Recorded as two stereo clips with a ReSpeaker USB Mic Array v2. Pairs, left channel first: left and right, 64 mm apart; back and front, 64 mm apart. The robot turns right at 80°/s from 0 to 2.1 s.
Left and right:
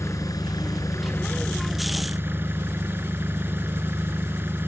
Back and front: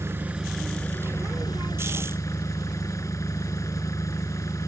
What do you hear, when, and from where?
0.0 s an engine running: 45° left; by 4.7 s 145° right